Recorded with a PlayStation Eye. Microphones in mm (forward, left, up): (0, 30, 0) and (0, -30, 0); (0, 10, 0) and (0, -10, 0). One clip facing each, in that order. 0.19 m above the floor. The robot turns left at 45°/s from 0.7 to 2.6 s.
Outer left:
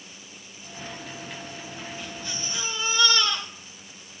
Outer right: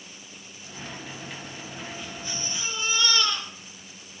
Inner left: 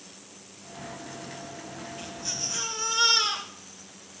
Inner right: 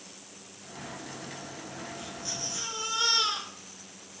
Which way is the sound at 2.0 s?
40° left (ahead or behind).